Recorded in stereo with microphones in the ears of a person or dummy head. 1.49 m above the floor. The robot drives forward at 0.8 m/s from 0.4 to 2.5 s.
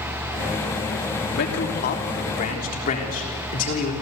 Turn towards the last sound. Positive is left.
turn(degrees=45)  # may be behind; listen again after turning